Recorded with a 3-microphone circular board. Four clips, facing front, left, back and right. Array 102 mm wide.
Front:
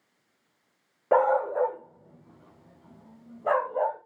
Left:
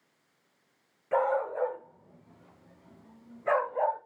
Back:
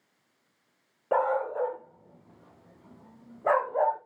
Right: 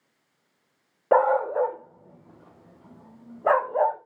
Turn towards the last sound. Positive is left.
turn(degrees=-105)